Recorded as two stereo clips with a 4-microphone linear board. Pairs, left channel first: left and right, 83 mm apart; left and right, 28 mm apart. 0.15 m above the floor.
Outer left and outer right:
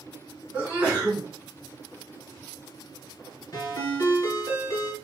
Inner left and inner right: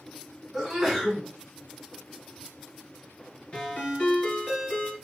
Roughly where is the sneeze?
Centre.